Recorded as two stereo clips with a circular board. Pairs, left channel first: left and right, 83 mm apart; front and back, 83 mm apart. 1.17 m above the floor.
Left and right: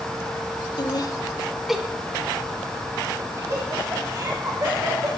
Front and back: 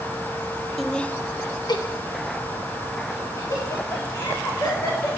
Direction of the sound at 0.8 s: 90° left.